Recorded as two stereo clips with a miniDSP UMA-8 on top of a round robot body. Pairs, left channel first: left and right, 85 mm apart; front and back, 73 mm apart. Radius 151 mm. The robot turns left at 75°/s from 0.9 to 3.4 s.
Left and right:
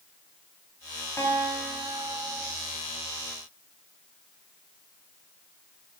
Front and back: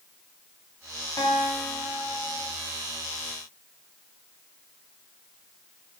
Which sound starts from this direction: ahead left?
A guitar, at 1.2 s.